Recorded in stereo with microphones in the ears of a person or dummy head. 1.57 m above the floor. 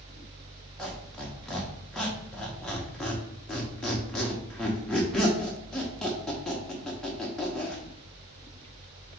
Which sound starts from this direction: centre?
A squeak, at 0.8 s.